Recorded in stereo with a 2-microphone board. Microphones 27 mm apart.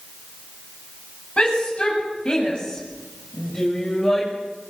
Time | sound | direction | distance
1.4 | a shout | 40° left (ahead or behind) | 8.5 m